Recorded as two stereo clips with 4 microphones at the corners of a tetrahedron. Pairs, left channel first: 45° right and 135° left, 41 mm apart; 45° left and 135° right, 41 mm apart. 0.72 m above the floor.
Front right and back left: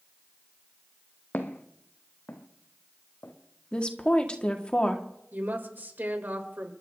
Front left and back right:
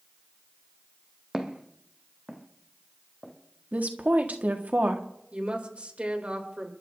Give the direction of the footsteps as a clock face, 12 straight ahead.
2 o'clock.